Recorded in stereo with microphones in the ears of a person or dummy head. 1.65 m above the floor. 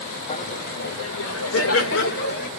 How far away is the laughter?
About 0.8 m.